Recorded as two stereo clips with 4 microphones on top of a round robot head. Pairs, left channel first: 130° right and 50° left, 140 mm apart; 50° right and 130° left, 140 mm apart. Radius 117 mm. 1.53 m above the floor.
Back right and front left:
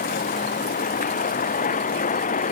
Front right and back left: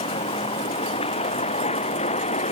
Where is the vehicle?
105° right; by 2.5 s 95° right.